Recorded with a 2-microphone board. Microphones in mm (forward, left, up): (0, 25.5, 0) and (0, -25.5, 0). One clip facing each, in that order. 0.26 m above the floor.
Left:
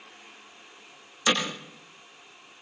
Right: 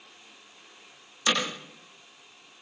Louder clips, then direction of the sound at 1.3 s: Left 1 dB; 5° left (ahead or behind).